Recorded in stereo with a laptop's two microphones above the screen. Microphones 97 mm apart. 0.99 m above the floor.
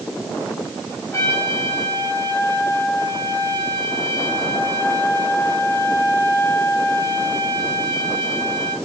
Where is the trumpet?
25° left (ahead or behind), 5.5 m.